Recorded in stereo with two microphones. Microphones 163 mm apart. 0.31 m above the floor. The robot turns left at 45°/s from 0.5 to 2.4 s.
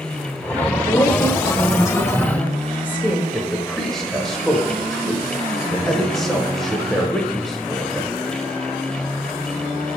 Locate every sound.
0.9 s a woman speaking: 20° left (ahead or behind), 0.9 m; by 3.2 s 10° left (ahead or behind), 0.9 m
3.3 s a man speaking: centre (ahead or behind), 1.0 m